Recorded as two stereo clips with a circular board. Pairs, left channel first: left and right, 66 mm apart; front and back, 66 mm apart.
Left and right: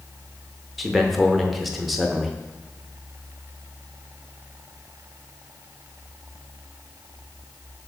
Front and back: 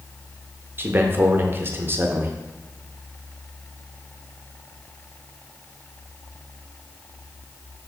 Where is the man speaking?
175° right, 0.5 m.